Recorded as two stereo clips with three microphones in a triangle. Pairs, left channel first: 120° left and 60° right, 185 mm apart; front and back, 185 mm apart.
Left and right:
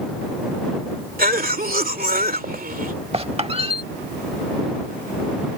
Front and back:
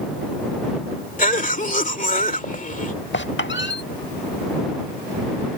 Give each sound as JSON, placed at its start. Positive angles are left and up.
{"t": 1.2, "sound": "a cough", "azimuth_deg": -35}
{"t": 3.1, "sound": "a squeak", "azimuth_deg": 0}